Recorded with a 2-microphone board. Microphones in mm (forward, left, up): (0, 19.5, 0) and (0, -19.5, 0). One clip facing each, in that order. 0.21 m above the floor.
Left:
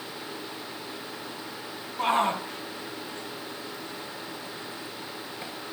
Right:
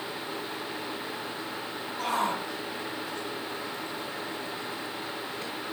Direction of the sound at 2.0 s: 30° left (ahead or behind).